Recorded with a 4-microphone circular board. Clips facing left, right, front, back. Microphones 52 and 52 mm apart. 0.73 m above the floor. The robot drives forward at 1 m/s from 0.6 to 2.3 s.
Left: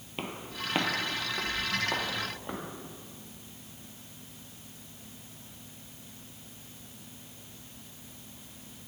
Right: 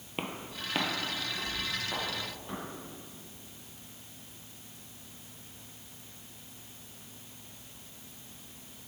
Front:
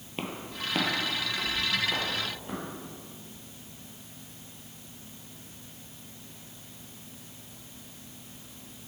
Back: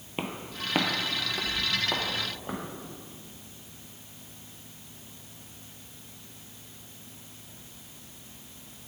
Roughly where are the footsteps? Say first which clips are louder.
Left 1 dB, back 1 dB; behind right.